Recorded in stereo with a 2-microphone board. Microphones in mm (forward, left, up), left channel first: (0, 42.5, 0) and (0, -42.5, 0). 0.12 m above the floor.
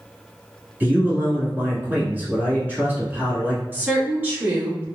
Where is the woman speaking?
20° right (ahead or behind), 1.4 m.